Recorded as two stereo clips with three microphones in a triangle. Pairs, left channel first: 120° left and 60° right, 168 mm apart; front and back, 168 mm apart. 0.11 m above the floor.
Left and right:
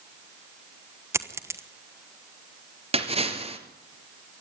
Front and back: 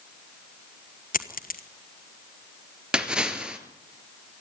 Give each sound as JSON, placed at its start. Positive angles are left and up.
{"t": 1.1, "sound": "a dropped coin", "azimuth_deg": 10, "distance_m": 1.2}
{"t": 2.9, "sound": "a splash", "azimuth_deg": -95, "distance_m": 2.0}